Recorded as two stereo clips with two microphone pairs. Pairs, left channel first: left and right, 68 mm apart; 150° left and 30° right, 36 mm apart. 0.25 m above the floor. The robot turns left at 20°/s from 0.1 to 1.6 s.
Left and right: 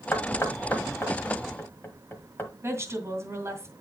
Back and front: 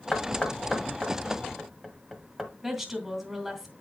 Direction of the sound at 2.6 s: 110° right.